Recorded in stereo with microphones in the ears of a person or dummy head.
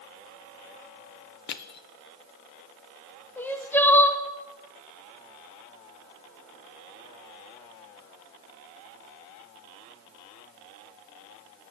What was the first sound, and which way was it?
Crushing, 50° left (ahead or behind).